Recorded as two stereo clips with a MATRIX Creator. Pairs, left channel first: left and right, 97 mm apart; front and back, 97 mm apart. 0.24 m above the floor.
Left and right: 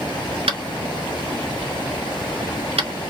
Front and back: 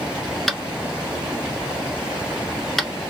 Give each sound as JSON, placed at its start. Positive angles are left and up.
{"t": 0.5, "sound": "tapping", "azimuth_deg": -90, "distance_m": 0.7}